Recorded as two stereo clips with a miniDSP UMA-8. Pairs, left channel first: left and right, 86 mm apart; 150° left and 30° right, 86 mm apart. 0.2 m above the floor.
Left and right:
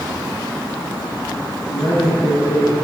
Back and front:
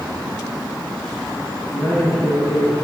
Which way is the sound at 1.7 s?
85° left.